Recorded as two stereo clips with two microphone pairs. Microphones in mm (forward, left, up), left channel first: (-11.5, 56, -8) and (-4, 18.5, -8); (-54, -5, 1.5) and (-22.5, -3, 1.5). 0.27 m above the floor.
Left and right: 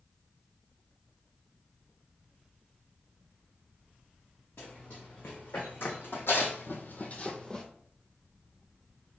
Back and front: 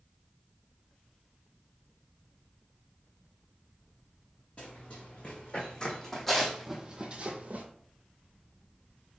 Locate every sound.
4.6 s running footsteps: 130° left, 1.5 m; by 7.7 s 30° left, 0.6 m